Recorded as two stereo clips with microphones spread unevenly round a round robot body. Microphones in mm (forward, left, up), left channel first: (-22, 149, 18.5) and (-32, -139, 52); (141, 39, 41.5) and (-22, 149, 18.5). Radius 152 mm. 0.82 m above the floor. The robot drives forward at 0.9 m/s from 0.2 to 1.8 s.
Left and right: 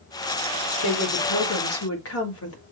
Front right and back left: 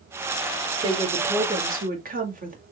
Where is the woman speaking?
80° left, 1.8 m; by 2.6 s 110° left, 1.8 m.